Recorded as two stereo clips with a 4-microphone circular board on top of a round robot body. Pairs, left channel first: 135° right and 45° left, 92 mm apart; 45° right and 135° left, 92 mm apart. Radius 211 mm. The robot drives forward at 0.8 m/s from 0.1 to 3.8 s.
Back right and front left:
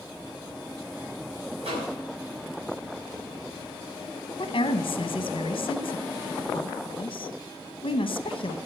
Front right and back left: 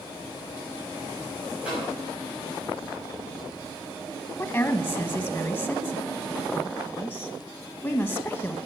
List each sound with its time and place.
1.6 s a microwave: 55° left, 5.5 m
4.4 s a woman speaking: 115° right, 1.0 m